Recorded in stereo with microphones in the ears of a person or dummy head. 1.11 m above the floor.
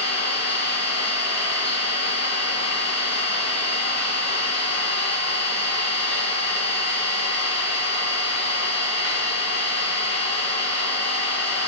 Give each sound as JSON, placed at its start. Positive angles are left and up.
{"t": 0.0, "sound": "an engine running", "side_deg": 70, "distance_m": 1.8}